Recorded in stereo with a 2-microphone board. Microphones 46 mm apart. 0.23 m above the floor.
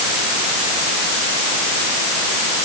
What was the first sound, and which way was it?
Only background noise.